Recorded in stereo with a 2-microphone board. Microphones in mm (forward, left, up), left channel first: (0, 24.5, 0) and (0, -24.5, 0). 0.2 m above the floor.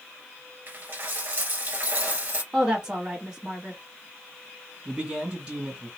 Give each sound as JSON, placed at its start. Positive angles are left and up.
{"t": 0.7, "sound": "a dropped coin", "side_deg": -45, "distance_m": 1.2}
{"t": 2.5, "sound": "a woman speaking", "side_deg": -15, "distance_m": 1.0}
{"t": 4.8, "sound": "a man speaking", "side_deg": -20, "distance_m": 2.0}